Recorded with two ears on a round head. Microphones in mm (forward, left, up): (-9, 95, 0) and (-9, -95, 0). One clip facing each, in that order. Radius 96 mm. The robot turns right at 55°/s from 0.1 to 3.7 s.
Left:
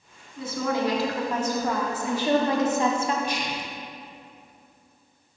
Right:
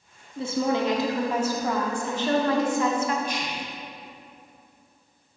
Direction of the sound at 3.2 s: 50° left (ahead or behind).